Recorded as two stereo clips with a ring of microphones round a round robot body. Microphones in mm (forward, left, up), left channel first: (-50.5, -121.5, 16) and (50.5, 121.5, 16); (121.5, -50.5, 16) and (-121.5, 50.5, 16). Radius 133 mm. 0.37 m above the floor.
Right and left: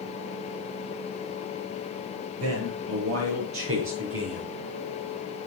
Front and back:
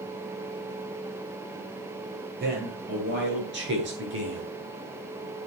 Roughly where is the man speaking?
Left.